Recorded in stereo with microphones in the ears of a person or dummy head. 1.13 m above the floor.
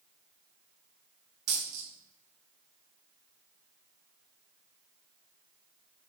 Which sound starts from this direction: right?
A dropped coin, at 1.5 s.